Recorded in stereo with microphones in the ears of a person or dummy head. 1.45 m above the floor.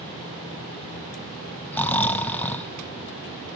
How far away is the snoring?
About 0.6 m.